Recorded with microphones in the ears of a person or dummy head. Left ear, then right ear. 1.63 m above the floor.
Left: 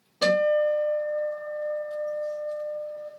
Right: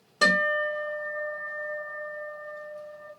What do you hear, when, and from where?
0.2 s a guitar: 60° right (ahead or behind), 1.5 m